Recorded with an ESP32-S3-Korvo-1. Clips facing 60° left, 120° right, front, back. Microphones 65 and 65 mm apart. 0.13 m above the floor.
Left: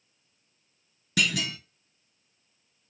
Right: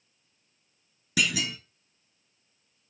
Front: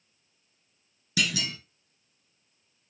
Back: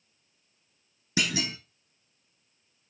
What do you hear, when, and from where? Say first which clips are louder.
1.2 s a clunk: even, even; 155° left, 0.7 m